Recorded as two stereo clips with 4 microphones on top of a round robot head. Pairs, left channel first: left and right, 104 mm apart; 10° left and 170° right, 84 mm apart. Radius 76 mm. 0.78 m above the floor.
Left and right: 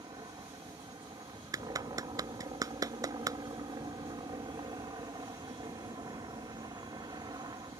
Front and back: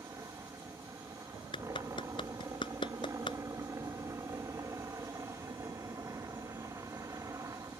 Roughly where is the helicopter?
Behind right.